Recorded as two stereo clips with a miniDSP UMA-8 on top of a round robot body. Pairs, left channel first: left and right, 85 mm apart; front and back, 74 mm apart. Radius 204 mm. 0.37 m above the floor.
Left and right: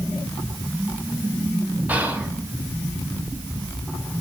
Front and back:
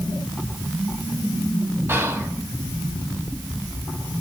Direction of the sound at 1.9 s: 150° right.